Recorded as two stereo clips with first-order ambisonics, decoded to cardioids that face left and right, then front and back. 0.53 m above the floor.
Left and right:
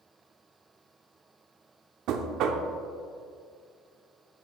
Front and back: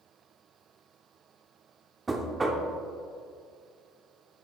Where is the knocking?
105° right, 0.8 m.